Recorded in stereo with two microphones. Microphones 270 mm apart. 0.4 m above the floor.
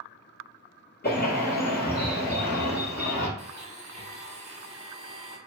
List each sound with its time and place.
1.0 s a bird: 35° left (ahead or behind), 1.4 m
3.4 s a blender: 25° right (ahead or behind), 0.7 m